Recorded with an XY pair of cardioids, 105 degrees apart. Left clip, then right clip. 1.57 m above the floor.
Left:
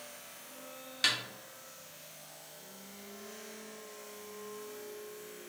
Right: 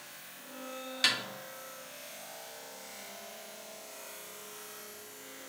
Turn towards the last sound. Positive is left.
turn(degrees=-15)